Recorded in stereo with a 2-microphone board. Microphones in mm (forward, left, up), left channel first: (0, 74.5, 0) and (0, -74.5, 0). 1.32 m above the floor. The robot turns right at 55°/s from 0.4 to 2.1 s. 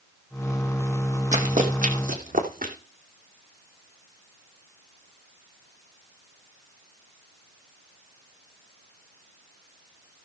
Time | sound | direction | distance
1.3 | running footsteps | 55° right (ahead or behind) | 2.5 m